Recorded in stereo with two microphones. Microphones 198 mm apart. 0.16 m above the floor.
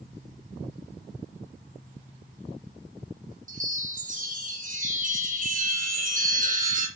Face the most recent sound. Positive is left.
turn(degrees=-45)  # may be behind; listen again after turning